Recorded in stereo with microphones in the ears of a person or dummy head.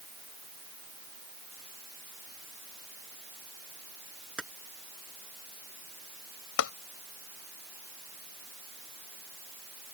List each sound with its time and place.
4.4 s keys jangling: centre (ahead or behind)
6.6 s tapping: 65° left (ahead or behind)